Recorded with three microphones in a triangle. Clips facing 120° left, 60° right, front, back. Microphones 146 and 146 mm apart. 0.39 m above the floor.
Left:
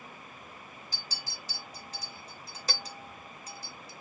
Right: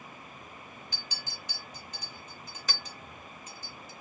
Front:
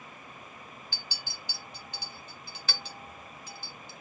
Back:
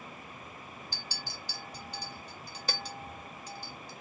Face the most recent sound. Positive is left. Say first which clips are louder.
# even, back 2 dB
turn(degrees=155)